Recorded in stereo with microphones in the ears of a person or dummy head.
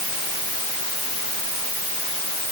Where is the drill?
I don't hear a drill.